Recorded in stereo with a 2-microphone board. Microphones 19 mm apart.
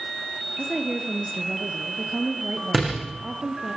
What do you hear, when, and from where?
0.6 s a woman speaking: 25° right (ahead or behind), 3 m
2.7 s a door slam: 5° right (ahead or behind), 8.5 m